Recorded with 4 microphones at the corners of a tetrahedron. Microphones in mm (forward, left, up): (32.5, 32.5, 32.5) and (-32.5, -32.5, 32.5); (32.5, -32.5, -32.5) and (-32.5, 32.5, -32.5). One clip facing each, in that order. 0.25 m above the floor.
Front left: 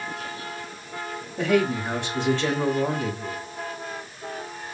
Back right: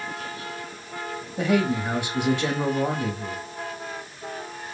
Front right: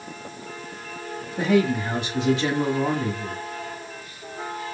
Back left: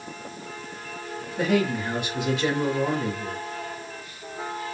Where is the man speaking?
70° right, 1.8 m.